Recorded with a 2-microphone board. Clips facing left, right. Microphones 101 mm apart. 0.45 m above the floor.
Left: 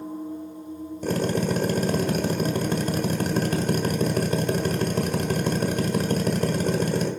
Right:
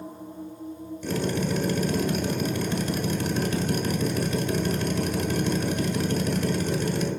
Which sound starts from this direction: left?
A drill, at 1.0 s.